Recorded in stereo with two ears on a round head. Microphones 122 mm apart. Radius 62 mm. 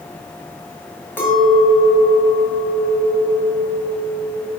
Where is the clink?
15° left (ahead or behind), 1.9 m.